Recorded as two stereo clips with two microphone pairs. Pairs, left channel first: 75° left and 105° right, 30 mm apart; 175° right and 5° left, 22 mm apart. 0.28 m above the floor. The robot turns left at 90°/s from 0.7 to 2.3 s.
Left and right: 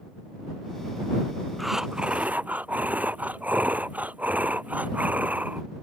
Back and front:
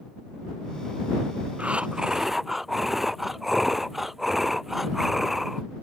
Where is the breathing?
15° right; by 5.6 s 80° right.